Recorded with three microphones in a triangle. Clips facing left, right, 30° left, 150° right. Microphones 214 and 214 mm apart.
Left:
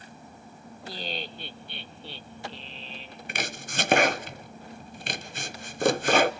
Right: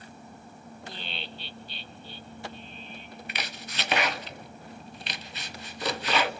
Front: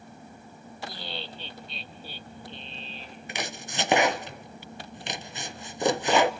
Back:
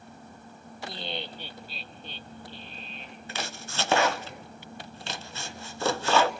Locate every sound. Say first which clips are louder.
0.8 s laughter: left 6 dB, back 3 dB; 150° left, 1.3 m; by 3.2 s 80° left, 1.5 m
3.3 s chopping: left 6 dB, front 2 dB; 95° left, 0.6 m